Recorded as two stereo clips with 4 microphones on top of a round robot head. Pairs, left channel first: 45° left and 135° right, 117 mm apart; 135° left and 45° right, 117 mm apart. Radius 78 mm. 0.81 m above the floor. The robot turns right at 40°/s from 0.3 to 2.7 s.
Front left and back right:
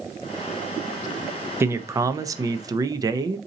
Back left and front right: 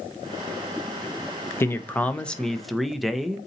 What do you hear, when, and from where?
1.6 s a man speaking: straight behind, 0.5 m; by 3.4 s 135° right, 0.5 m